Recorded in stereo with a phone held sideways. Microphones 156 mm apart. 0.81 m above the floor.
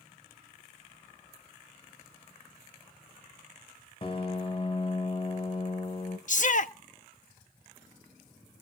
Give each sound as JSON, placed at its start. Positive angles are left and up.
{"t": 4.0, "sound": "a piano", "side_deg": 40, "distance_m": 1.1}
{"t": 6.3, "sound": "a shout", "side_deg": 55, "distance_m": 0.8}